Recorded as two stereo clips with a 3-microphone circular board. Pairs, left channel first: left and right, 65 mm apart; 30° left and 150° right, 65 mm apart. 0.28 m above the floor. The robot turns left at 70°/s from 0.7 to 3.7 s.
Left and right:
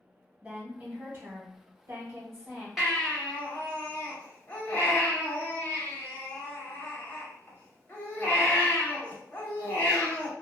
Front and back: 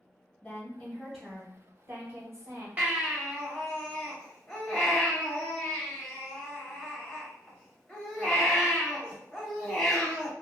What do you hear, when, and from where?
0.4 s a woman speaking: 25° right, 1.3 m; by 2.7 s 165° right, 1.3 m
2.8 s a baby crying: straight behind, 0.8 m; by 10.3 s 115° left, 0.8 m